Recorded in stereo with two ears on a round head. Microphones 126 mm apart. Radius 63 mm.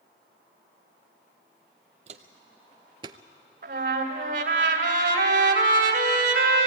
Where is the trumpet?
70° right (ahead or behind), 2.5 m.